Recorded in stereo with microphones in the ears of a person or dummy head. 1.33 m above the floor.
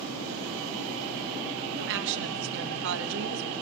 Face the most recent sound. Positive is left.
turn(degrees=-65)  # may be behind; listen again after turning